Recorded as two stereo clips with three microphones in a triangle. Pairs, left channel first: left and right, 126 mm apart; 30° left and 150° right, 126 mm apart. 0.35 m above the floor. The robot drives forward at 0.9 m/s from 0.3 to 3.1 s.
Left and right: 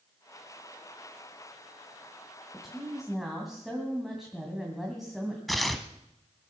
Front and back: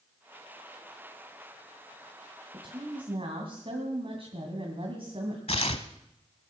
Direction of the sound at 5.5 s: Straight ahead.